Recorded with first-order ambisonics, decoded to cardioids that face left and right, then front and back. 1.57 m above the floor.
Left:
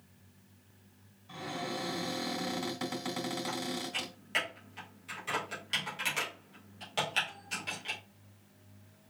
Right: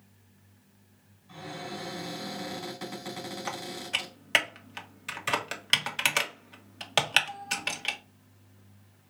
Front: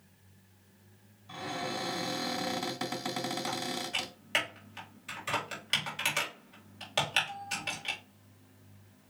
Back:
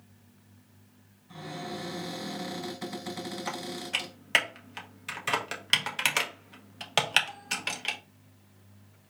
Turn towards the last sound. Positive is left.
turn(degrees=-120)